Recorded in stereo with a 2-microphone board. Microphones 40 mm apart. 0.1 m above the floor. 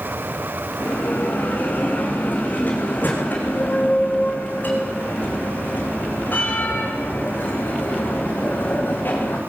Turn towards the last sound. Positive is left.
turn(degrees=50)  # may be behind; listen again after turning